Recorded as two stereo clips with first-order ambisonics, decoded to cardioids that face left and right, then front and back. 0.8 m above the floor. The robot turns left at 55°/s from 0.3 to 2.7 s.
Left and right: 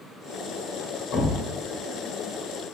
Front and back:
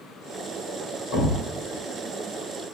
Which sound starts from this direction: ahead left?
A thud, at 1.1 s.